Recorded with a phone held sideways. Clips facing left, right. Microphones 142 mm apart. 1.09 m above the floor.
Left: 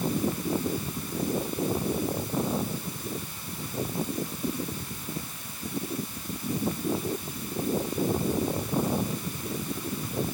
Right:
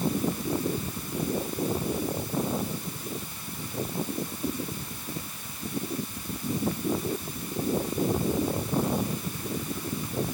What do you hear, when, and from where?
Only background noise.